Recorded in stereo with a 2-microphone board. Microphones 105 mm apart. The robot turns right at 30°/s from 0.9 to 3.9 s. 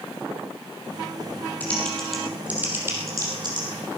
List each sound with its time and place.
1.6 s typing on a keyboard: 15° left (ahead or behind), 4 m; by 3.7 s 45° right (ahead or behind), 4 m